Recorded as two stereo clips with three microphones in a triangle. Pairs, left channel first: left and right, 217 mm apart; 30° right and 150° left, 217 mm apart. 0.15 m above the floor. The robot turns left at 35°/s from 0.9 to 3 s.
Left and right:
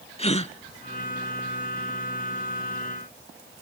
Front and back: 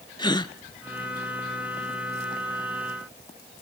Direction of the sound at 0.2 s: 35° left.